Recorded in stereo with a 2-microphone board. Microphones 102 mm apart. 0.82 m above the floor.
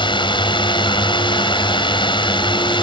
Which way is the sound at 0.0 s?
55° left (ahead or behind).